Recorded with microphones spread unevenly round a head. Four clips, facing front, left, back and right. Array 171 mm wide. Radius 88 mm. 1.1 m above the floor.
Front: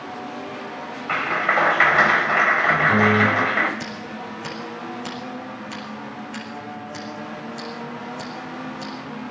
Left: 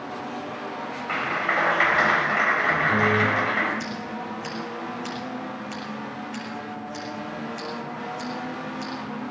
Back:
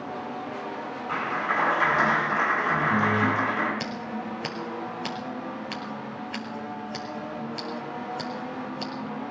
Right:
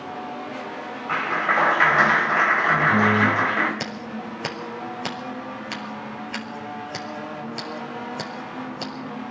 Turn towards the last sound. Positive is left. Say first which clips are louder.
# even, even
turn(degrees=-95)